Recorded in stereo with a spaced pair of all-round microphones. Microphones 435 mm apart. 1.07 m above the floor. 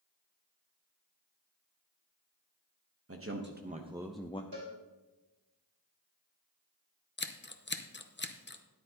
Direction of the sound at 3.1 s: 35° right (ahead or behind).